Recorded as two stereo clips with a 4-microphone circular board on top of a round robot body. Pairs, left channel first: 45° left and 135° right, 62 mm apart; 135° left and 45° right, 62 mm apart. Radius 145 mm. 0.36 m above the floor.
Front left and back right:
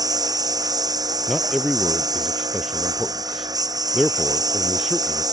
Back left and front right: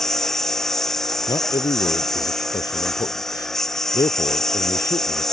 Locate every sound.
0.0 s a lawn mower: 140° right
1.3 s a man speaking: 135° left